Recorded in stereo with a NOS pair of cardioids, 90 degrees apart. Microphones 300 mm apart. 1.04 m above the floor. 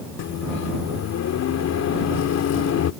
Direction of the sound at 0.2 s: 60° left.